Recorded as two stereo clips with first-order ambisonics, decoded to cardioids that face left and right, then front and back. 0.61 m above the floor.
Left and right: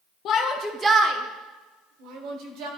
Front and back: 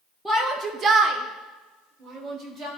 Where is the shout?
100° left, 0.6 m; by 2.7 s 115° right, 1.9 m.